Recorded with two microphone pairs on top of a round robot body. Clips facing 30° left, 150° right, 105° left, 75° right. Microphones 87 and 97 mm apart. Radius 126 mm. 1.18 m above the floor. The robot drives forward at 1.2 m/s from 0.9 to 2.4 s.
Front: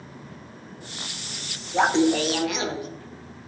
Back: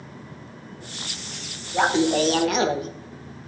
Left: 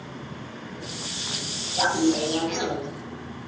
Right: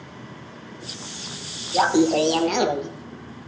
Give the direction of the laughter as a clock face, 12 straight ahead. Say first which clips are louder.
Even, right 4 dB; 2 o'clock.